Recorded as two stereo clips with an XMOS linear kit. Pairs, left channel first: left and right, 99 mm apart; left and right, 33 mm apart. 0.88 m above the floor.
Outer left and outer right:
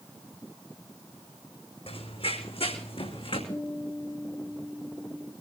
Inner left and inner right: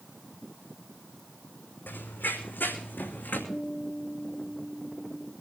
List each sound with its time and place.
1.9 s running footsteps: 75° left (ahead or behind), 3.5 m; by 3.4 s 70° left (ahead or behind), 3.5 m
3.5 s a guitar: 35° left (ahead or behind), 9 m